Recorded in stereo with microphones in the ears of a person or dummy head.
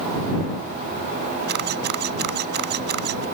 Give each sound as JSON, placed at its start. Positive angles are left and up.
{"t": 1.5, "sound": "a camera shutter", "side_deg": -55}